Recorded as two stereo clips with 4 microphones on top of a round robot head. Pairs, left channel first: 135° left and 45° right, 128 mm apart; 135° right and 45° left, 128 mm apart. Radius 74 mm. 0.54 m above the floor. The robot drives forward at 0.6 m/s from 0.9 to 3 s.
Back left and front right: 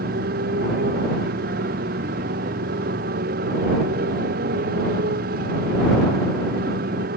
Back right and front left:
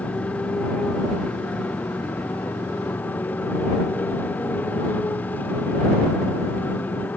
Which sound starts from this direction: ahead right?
A motorcycle, at 0.0 s.